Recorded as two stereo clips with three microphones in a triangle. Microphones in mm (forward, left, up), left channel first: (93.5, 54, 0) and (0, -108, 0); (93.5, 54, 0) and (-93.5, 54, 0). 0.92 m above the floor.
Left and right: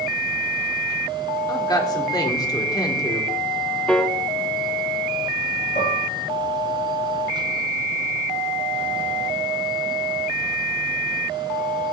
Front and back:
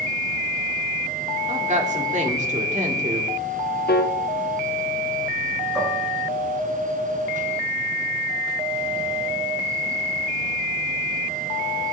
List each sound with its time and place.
1.5 s a woman speaking: 130° left, 2 m
3.9 s a piano: 25° right, 0.6 m
5.8 s dishes clattering: 90° left, 5.5 m